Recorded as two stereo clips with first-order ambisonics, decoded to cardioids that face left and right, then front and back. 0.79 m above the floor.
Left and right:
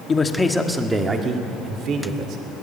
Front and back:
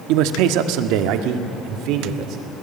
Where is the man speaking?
160° left, 1.5 m; by 2.4 s 140° right, 2.5 m.